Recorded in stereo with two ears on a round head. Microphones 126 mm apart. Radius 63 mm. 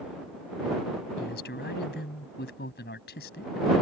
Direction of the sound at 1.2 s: 85° left.